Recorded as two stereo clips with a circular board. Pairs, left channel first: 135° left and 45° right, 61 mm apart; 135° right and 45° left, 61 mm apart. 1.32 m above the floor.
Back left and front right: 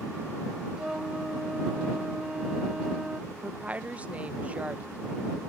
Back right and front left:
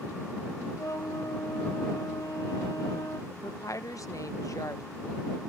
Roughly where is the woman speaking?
Right.